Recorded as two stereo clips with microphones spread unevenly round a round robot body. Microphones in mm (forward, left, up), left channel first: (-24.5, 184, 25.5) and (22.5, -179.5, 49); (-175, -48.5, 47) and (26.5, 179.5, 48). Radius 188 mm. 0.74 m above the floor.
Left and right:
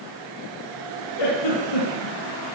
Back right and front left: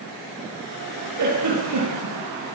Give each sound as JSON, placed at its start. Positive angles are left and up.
{"t": 1.2, "sound": "a giggle", "azimuth_deg": 75, "distance_m": 9.0}